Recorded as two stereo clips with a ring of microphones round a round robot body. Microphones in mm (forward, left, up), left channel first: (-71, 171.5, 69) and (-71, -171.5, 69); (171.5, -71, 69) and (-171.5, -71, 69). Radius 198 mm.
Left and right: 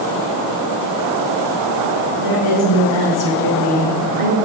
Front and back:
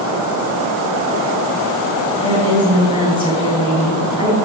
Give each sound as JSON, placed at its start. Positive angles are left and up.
{"t": 2.2, "sound": "a woman speaking", "azimuth_deg": 80, "distance_m": 4.5}